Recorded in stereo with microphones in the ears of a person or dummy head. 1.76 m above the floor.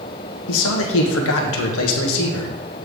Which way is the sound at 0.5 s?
75° left (ahead or behind).